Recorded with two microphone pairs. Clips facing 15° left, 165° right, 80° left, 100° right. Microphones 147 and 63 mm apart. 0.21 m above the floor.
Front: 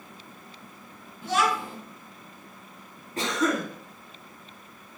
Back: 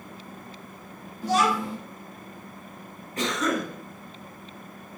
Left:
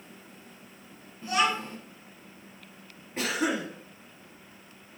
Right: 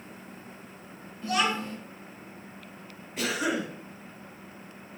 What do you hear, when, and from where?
1.2 s a child speaking: 145° left, 1.4 m
3.2 s a cough: 50° left, 1.4 m